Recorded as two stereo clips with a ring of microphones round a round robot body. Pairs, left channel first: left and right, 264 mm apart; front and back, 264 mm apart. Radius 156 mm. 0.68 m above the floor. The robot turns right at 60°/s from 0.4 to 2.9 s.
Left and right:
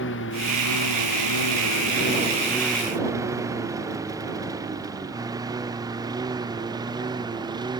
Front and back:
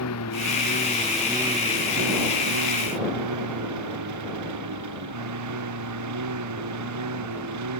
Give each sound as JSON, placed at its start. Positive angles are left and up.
{"t": 0.0, "sound": "a lawn mower", "azimuth_deg": 40}